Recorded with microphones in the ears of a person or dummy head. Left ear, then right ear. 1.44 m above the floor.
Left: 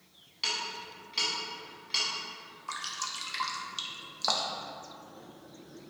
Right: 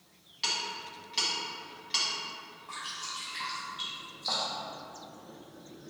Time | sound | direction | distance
0.4 | ticking | 5° right (ahead or behind) | 1.3 m
2.7 | dripping | 75° left (ahead or behind) | 0.5 m